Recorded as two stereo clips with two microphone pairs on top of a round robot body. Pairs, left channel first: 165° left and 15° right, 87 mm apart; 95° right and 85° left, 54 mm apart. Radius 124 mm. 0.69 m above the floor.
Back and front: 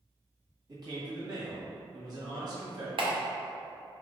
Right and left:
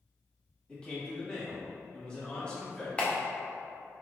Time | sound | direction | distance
0.7 | a man speaking | 35° right | 1.8 m
3.0 | a clap | 30° right | 0.9 m